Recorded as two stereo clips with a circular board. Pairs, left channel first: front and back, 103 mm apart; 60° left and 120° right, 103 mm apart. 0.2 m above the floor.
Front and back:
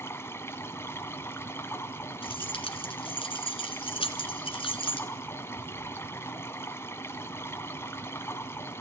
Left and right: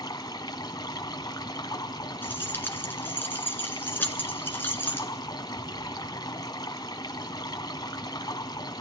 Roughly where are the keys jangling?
Ahead.